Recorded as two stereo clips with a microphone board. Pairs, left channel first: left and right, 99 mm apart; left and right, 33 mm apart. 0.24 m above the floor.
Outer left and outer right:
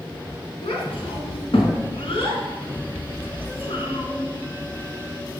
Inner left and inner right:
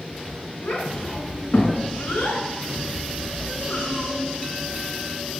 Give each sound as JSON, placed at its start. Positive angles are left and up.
{"t": 0.6, "sound": "a child speaking", "side_deg": 60, "distance_m": 1.9}